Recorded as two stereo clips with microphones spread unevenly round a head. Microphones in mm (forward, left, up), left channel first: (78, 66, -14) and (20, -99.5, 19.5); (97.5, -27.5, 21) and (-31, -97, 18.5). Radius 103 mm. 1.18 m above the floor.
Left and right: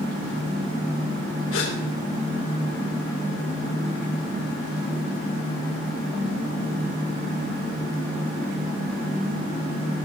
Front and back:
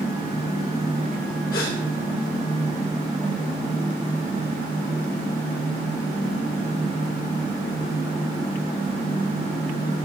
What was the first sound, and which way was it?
A gasp, 75° left.